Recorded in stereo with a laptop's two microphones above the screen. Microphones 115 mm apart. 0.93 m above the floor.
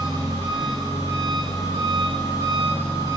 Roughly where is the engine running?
Right.